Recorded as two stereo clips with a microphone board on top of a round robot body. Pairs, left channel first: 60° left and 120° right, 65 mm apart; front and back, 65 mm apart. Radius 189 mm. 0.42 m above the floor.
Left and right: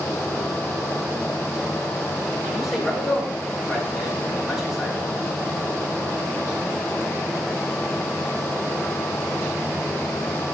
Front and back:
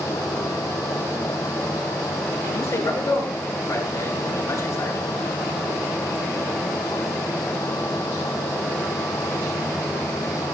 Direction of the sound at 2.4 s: 30° right.